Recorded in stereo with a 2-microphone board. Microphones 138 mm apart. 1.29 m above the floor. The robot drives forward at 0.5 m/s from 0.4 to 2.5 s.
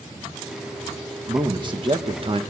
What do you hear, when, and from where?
1.3 s a man speaking: 30° right (ahead or behind), 1.8 m; by 2.4 s 45° right (ahead or behind), 1.3 m